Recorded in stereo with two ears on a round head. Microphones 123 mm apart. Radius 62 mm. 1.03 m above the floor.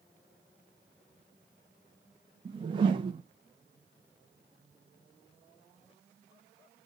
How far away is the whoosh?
About 0.5 m.